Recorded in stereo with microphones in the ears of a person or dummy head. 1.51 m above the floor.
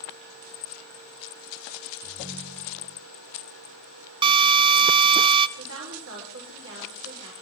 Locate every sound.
2.0 s a ringtone: 10° right (ahead or behind), 6 m
4.2 s a drill: 25° right (ahead or behind), 0.9 m
5.6 s a woman speaking: 70° right (ahead or behind), 5.5 m